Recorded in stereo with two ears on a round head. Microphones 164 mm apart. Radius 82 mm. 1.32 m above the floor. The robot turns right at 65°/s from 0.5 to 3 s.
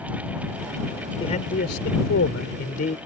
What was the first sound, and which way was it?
A man speaking, 30° left.